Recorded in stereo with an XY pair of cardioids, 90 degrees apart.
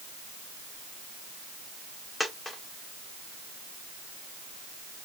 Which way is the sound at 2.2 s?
30° left.